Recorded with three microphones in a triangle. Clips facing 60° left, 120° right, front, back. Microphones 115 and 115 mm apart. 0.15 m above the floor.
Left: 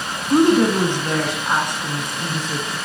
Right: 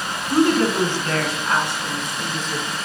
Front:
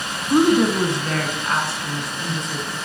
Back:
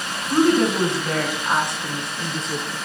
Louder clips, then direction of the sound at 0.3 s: Left 3 dB, front 2 dB; 35° left.